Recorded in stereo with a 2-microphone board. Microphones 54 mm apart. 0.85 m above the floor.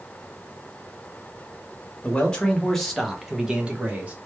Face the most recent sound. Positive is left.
turn(degrees=-30)  # may be behind; listen again after turning